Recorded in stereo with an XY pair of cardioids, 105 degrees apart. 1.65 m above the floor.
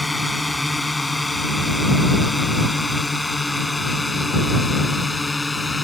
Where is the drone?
10° left; by 5.8 s 15° left.